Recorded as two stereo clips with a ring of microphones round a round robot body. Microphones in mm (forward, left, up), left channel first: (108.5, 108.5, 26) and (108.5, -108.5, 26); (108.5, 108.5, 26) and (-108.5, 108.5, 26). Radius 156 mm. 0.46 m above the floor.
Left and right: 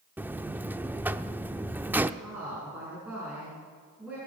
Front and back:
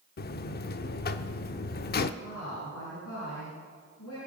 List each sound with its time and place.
0.2 s a buzzer: 10° right, 0.6 m
2.2 s a woman speaking: 5° right, 7 m